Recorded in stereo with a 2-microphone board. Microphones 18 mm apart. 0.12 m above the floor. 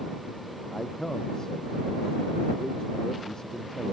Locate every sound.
0.7 s a man speaking: 35° left (ahead or behind)